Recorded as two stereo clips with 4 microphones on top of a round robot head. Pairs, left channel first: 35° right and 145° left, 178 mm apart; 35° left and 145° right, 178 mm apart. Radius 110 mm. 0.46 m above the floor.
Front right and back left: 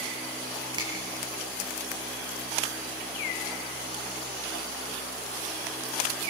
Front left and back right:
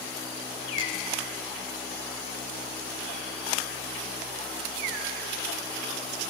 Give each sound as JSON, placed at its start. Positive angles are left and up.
{"t": 0.8, "sound": "a finger snap", "azimuth_deg": -145, "distance_m": 8.5}